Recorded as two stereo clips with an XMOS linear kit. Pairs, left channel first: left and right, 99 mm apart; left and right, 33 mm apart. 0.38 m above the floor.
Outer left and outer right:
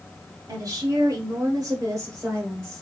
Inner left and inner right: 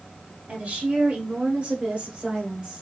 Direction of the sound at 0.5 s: 40° right (ahead or behind).